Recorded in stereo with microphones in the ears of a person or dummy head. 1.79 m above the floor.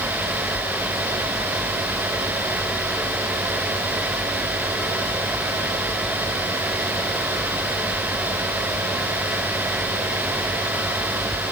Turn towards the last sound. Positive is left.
No sound to turn to.